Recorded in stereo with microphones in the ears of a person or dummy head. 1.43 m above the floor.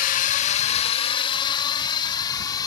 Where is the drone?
45° left (ahead or behind); by 2.7 s 20° left (ahead or behind).